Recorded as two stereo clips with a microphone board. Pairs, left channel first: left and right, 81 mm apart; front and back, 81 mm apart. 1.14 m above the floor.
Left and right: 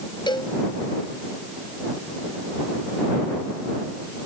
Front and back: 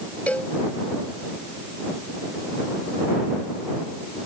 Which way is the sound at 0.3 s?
70° left.